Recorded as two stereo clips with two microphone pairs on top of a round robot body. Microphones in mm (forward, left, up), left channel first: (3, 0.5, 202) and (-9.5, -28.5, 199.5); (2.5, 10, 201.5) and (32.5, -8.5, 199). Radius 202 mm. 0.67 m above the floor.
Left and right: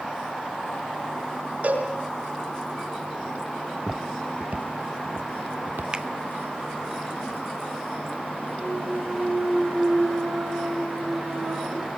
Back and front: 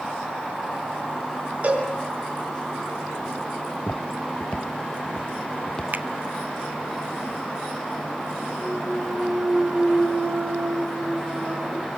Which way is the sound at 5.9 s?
55° right.